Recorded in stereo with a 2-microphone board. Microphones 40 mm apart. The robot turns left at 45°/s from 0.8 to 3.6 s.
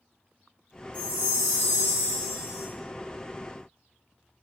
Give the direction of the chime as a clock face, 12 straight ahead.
7 o'clock.